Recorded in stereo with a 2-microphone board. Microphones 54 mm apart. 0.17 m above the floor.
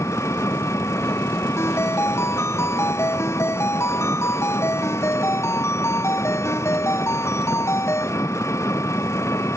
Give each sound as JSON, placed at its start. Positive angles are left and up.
{"t": 0.0, "sound": "an engine running", "side_deg": 65}
{"t": 1.6, "sound": "a ringtone", "side_deg": 55}